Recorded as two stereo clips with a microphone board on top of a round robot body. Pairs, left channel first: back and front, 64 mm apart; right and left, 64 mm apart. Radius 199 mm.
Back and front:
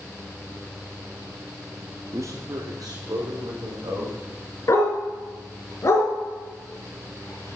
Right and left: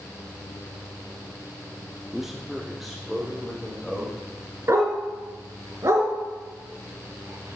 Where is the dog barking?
135° left, 3 m.